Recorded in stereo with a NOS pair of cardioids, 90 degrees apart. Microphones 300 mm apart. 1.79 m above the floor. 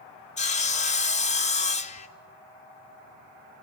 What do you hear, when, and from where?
0.4 s sawing: 25° left, 0.7 m